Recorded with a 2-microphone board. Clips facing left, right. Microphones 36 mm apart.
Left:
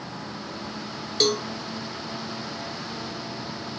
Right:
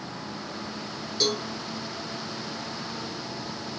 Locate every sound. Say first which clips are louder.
1.2 s a cowbell: left 4 dB; 55° left (ahead or behind), 0.8 m